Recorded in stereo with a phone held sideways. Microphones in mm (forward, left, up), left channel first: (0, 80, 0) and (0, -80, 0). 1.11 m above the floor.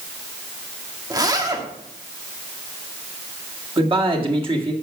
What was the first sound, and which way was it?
A zipper, 25° right (ahead or behind).